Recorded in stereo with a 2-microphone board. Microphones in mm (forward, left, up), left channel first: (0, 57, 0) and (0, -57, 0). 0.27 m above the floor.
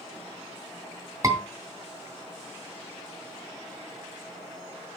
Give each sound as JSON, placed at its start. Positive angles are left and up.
{"t": 1.2, "sound": "a scream", "side_deg": -30, "distance_m": 2.5}